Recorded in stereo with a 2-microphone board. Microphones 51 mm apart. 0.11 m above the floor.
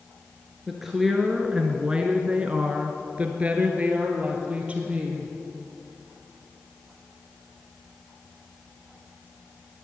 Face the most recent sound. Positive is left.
turn(degrees=-25)  # may be behind; listen again after turning